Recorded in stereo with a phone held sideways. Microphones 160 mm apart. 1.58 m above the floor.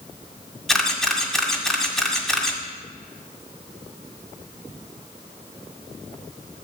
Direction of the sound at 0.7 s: Centre (ahead or behind).